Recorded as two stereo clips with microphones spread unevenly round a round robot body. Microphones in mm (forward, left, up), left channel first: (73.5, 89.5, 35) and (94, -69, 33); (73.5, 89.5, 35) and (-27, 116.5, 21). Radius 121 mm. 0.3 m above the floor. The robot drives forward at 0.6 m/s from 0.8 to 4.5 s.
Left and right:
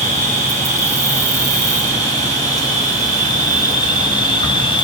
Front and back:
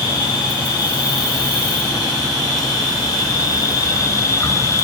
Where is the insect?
80° right, 3 m; by 4.8 s 130° right, 3.5 m.